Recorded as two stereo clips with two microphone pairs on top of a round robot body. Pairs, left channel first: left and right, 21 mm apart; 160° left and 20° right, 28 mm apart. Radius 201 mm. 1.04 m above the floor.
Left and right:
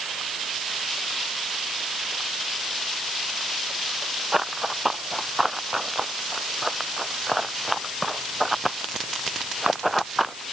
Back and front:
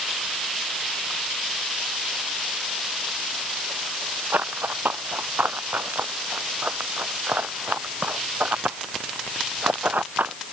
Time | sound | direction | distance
4.3 | running footsteps | 10° right | ?